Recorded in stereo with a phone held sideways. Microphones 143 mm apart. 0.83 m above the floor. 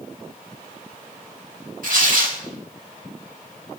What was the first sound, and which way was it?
Tearing paper, 70° right (ahead or behind).